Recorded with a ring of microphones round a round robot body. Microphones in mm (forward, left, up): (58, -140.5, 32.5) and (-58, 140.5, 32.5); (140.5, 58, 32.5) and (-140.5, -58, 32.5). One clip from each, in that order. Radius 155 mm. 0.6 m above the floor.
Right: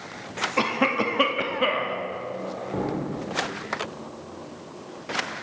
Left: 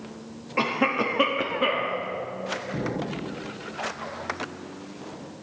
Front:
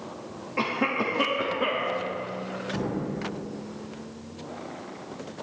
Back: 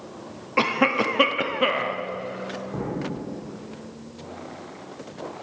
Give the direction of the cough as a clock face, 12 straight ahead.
5 o'clock.